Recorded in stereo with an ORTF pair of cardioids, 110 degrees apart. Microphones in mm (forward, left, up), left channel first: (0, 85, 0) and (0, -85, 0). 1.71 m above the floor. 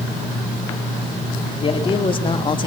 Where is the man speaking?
30° left, 5 m.